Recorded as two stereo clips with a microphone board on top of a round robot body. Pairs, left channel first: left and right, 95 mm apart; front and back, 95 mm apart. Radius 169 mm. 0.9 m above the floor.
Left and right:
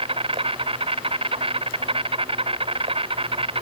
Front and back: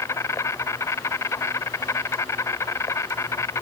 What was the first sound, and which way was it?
An insect, 65° right.